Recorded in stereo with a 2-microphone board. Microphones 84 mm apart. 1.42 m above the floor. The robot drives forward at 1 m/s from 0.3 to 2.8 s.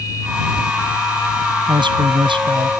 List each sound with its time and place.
1.7 s a man speaking: 75° right (ahead or behind); by 2.7 s 80° right